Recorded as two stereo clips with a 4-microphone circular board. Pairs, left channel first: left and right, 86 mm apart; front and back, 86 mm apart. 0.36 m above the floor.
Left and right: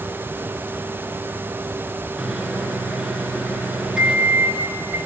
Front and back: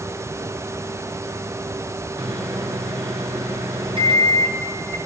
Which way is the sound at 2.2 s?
175° right.